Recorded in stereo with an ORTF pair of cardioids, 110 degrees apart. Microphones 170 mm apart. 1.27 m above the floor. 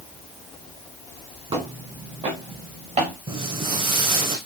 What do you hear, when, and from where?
1.5 s footsteps: 35° right, 4 m; by 3.1 s 45° right, 5 m
3.3 s footsteps: 30° right, 4 m